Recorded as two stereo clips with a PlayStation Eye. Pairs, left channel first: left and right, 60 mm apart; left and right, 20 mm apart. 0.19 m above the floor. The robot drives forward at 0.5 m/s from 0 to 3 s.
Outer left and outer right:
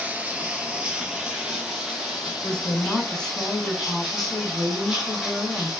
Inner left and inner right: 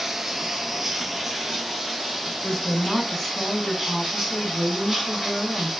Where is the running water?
25° right (ahead or behind), 1.0 m; by 5.8 s 10° right (ahead or behind), 2.5 m.